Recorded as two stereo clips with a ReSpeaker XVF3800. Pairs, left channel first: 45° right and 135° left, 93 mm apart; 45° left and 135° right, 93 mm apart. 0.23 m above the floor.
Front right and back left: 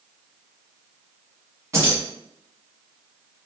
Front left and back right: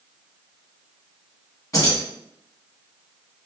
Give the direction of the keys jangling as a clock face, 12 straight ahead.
9 o'clock.